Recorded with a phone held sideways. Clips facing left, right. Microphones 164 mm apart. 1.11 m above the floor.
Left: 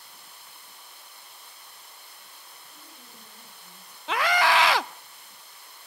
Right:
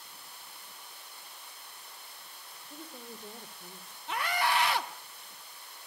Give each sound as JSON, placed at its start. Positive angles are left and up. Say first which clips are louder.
{"t": 2.7, "sound": "a woman speaking", "louder": "right 10 dB", "side_deg": -80, "distance_m": 3.5}
{"t": 4.1, "sound": "a scream", "louder": "left 7 dB", "side_deg": 90, "distance_m": 0.6}